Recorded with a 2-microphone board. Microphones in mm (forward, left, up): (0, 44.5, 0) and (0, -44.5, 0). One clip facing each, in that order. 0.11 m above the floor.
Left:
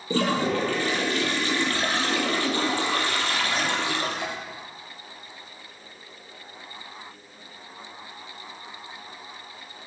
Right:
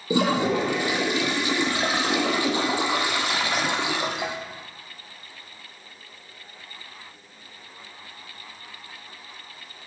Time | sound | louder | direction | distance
0.1 | a toilet flushing | right 2 dB | 15° right (ahead or behind) | 1.0 m